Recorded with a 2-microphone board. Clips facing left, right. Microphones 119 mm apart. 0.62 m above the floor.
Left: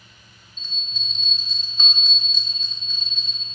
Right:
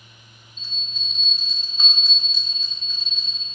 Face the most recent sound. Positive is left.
turn(degrees=-10)  # may be behind; listen again after turning